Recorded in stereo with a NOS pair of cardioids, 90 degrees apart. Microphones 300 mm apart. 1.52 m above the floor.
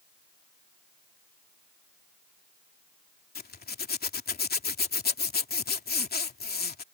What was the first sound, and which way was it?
A zipper, 30° left.